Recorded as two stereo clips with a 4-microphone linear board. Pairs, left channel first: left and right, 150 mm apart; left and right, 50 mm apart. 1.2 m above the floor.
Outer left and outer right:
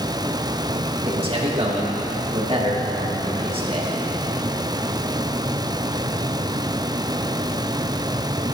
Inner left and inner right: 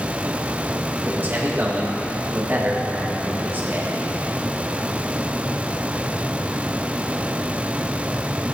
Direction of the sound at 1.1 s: 35° right (ahead or behind).